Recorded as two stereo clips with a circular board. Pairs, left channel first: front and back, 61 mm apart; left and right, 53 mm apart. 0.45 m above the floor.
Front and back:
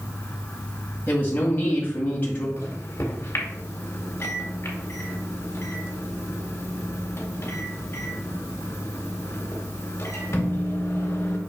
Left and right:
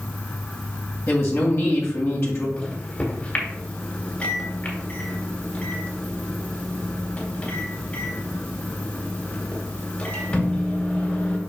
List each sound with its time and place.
1.1 s a woman speaking: 60° left, 2 m
2.6 s a microwave: 35° left, 2.0 m